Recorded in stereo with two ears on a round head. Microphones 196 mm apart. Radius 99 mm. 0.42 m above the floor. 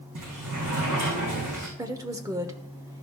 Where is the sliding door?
80° right, 5.5 m.